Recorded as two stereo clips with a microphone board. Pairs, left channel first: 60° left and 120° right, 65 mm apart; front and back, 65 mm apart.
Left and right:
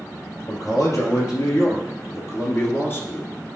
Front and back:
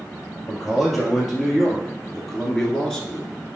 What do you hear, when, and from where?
0.5 s a man speaking: 85° left, 3 m; by 3.3 s 65° left, 1.3 m